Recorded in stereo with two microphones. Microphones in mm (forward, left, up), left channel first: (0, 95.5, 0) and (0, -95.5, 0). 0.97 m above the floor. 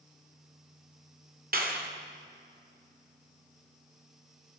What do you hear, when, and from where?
1.5 s a clap: 50° right (ahead or behind), 2 m